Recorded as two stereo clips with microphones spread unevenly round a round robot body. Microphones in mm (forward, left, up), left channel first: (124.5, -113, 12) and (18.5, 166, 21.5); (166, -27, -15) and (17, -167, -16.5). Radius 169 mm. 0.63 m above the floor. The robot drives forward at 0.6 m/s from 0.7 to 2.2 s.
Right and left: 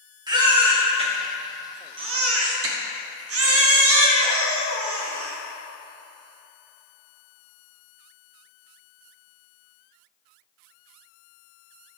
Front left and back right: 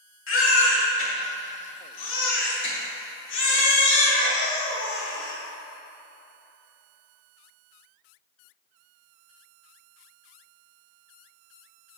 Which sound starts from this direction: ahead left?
A baby crying, at 0.3 s.